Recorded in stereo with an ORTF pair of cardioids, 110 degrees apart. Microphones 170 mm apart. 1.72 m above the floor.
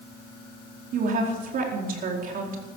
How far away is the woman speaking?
About 4.5 m.